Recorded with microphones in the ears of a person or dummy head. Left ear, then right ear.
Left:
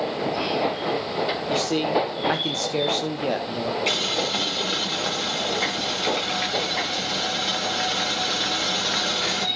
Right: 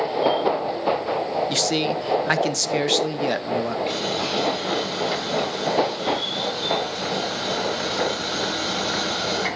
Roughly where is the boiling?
Left.